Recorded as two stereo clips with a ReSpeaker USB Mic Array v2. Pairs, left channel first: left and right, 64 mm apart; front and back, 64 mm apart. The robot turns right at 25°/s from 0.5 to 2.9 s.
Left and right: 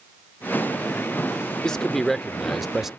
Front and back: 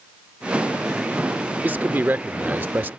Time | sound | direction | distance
1.6 | a man speaking | 160° left | ?